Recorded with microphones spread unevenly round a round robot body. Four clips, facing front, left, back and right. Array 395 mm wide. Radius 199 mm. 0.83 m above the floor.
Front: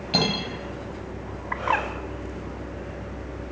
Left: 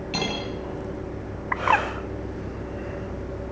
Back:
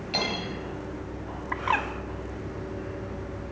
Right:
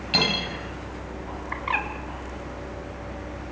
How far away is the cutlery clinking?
About 3.5 m.